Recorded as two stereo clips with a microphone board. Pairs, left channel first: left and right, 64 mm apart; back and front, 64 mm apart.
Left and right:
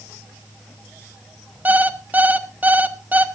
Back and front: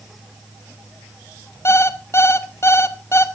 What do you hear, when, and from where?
1.6 s an alarm clock: 145° right, 1.1 m